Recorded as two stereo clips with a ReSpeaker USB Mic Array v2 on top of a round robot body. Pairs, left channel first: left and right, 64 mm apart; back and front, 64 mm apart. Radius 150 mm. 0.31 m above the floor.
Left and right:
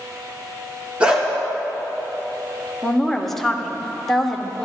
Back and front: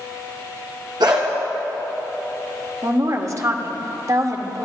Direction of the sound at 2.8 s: 5° left.